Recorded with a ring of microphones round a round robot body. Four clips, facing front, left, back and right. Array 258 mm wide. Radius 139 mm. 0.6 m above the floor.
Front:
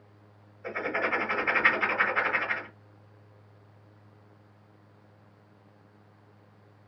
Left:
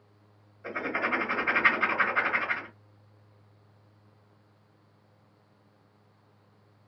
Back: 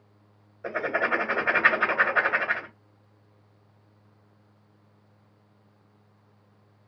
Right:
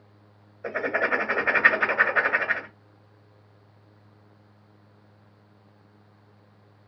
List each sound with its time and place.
0.6 s writing: 125° right, 1.9 m